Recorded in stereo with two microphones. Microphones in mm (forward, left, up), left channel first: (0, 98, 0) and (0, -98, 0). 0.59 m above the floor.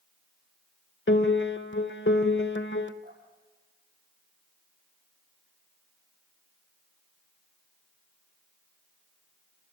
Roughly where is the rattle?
No rattle in this recording.